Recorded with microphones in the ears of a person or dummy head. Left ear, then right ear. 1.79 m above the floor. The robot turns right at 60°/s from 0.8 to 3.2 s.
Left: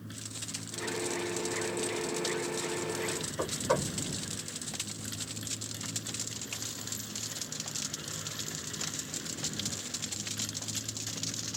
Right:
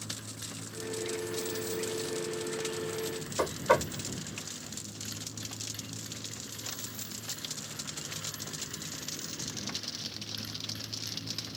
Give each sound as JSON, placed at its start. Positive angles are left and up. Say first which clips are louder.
{"t": 0.0, "sound": "a motorcycle", "louder": "right 2 dB", "azimuth_deg": -155}
{"t": 3.4, "sound": "knocking", "louder": "right 5 dB", "side_deg": -75}